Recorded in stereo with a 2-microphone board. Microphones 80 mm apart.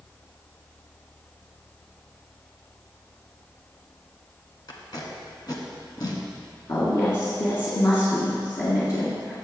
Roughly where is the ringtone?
No ringtone in this recording.